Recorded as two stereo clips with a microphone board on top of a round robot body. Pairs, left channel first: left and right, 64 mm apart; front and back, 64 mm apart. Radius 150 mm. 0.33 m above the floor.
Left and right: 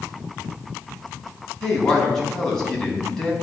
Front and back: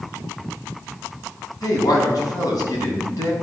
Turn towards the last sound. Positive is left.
turn(degrees=10)